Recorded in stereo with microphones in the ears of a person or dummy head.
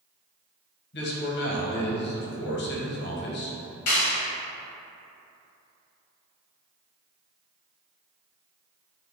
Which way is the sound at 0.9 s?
55° left (ahead or behind).